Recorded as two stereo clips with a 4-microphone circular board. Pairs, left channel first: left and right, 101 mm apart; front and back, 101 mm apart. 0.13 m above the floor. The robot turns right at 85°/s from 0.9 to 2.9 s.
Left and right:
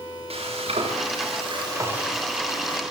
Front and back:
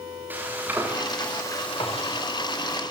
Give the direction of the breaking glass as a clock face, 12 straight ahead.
No breaking glass in this recording.